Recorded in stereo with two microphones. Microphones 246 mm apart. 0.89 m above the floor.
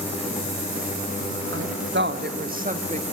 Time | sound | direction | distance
1.5 | a woman speaking | 55° right (ahead or behind) | 1.3 m